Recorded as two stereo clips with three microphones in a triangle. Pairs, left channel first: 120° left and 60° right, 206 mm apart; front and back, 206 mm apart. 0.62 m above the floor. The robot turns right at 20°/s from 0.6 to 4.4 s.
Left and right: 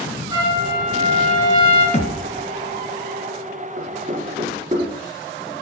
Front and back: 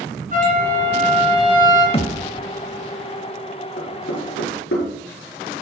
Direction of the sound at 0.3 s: 130° right.